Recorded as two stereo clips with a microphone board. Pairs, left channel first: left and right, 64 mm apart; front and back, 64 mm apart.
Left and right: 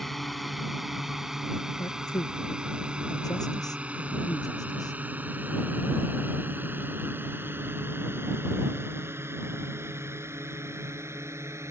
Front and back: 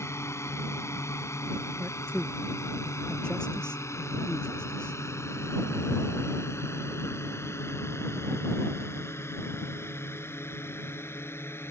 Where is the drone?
5° left; by 11.7 s 50° right.